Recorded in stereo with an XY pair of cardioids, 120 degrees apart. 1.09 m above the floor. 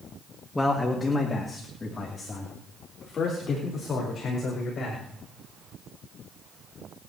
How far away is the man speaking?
About 1.7 m.